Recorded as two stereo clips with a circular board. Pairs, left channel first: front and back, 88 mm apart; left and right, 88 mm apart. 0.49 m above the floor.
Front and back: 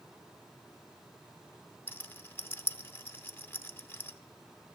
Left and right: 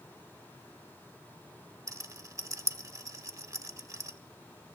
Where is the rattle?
55° right, 0.9 m.